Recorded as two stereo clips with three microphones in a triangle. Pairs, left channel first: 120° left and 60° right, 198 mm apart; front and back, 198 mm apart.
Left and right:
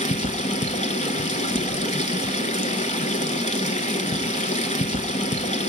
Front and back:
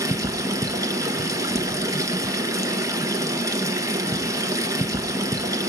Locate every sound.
0.0 s running water: 120° left, 1.1 m